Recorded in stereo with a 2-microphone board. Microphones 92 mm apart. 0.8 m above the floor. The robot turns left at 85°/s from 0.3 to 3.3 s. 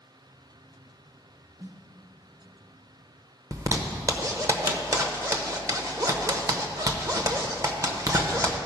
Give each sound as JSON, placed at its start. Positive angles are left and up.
{"t": 1.6, "sound": "a snare drum", "side_deg": -35, "distance_m": 0.9}
{"t": 3.5, "sound": "a zipper", "side_deg": -40, "distance_m": 0.7}